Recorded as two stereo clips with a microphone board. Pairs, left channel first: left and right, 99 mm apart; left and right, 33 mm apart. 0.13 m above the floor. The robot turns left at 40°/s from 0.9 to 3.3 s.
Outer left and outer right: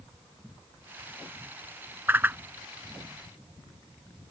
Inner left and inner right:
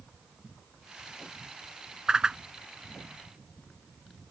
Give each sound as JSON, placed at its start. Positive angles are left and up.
{"t": 2.1, "sound": "a whoosh", "side_deg": -25}